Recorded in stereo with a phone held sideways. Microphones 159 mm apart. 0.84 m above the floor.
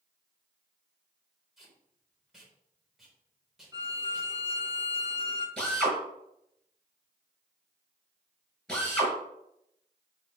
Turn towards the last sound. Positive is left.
turn(degrees=5)  # may be behind; listen again after turning